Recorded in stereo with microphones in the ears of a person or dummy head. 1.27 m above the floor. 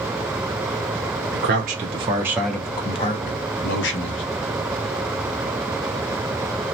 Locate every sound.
1.3 s a man speaking: 45° right (ahead or behind), 0.7 m; by 4.2 s 65° left (ahead or behind), 1.1 m